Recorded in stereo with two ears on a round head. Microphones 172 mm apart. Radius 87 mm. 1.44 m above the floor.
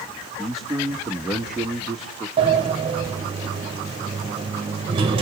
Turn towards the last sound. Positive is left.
turn(degrees=-30)  # may be behind; listen again after turning